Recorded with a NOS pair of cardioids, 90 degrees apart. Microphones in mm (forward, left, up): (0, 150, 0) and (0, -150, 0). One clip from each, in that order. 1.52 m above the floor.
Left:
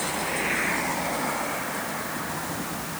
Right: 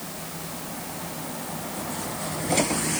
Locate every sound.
Only background noise.